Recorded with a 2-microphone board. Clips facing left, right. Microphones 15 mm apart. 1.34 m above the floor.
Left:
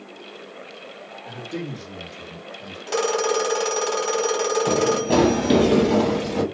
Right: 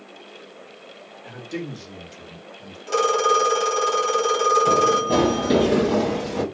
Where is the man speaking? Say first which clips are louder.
Even; 35° right (ahead or behind), 1.5 m; by 2.8 s 5° right (ahead or behind), 0.7 m.